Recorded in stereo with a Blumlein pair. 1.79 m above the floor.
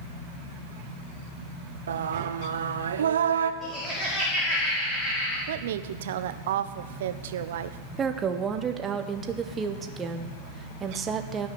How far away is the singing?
About 0.9 m.